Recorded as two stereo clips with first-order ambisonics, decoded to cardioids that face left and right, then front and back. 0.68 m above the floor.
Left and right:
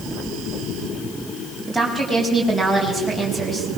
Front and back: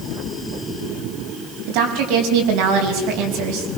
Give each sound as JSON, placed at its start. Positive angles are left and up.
{"t": 1.7, "sound": "a woman speaking", "azimuth_deg": 180, "distance_m": 5.0}